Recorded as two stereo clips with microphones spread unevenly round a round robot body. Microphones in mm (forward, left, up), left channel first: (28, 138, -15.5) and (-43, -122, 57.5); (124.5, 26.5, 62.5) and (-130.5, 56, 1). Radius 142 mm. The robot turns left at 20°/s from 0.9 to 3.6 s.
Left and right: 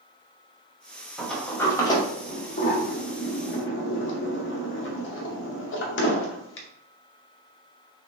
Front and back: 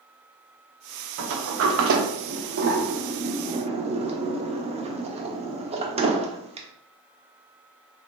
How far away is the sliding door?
About 0.8 m.